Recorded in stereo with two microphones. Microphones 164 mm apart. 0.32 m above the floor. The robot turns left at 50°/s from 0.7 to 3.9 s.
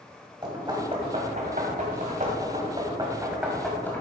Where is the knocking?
25° right (ahead or behind), 2.0 m; by 4.0 s 10° left (ahead or behind), 2.0 m.